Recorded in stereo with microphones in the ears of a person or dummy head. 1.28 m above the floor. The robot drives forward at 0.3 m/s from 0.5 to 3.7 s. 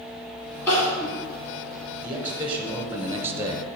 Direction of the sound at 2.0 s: 5° right (ahead or behind).